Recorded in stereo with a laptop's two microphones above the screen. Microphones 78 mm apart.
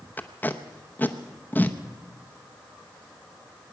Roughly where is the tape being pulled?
Left.